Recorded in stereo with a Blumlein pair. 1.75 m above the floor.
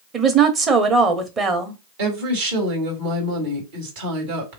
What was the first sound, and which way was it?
A woman speaking, 25° right.